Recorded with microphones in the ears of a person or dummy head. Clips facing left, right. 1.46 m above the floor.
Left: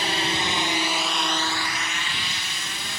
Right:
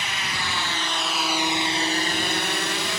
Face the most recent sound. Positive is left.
turn(degrees=-55)  # may be behind; listen again after turning